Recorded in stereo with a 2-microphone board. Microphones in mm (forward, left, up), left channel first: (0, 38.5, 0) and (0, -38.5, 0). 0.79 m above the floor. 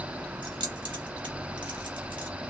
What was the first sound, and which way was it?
Keys jangling, 85° right.